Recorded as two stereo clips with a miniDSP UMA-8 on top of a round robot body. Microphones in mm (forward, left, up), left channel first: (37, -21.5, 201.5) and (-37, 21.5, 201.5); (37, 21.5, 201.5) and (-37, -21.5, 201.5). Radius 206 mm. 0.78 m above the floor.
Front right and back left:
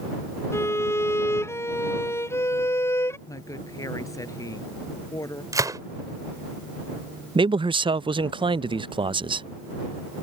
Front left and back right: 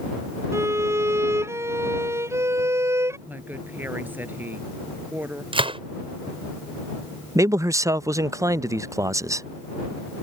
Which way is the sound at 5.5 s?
160° right.